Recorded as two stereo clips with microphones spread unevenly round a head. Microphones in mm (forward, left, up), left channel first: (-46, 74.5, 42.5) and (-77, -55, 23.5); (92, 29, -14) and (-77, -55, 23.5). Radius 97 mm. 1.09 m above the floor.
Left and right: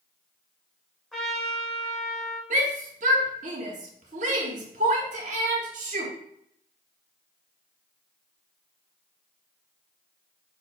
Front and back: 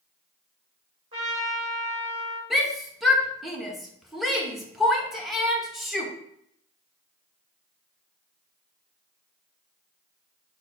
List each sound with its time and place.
1.1 s a trumpet: 155° left, 1.7 m
2.5 s a shout: 60° right, 1.0 m